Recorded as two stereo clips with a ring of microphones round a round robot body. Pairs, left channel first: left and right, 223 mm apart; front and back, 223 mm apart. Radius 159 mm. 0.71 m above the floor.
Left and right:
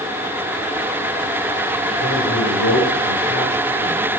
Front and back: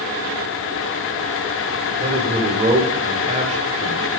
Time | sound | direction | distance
2.0 | a man speaking | 120° left | 2.5 m